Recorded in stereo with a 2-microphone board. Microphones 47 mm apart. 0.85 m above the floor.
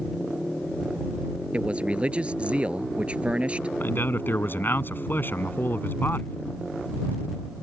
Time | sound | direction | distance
1.5 | a man speaking | 25° right (ahead or behind) | ?
3.8 | a man speaking | 50° left (ahead or behind) | ?